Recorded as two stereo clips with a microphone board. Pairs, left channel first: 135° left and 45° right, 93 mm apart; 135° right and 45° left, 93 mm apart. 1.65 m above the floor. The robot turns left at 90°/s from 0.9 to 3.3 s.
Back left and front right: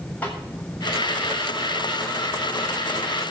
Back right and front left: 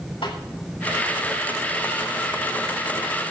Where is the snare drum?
150° right, 7.5 m.